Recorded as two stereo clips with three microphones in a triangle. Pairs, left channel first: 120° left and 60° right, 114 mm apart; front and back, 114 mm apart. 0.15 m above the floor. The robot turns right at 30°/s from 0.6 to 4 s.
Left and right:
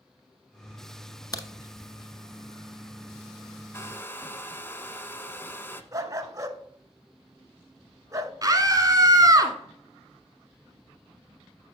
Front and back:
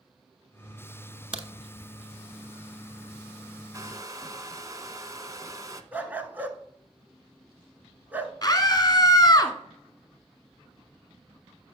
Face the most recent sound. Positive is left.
turn(degrees=-25)